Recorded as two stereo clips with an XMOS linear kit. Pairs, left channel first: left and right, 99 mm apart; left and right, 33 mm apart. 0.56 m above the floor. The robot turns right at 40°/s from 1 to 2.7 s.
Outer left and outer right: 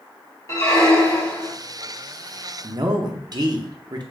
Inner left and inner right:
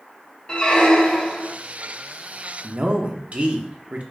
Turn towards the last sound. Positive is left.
turn(degrees=-40)  # may be behind; listen again after turning